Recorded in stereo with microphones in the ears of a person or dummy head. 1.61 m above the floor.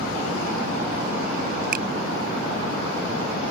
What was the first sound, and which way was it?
A finger snap, 55° right (ahead or behind).